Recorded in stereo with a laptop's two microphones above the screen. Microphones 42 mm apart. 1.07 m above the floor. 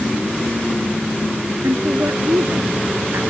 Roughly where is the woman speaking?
Right.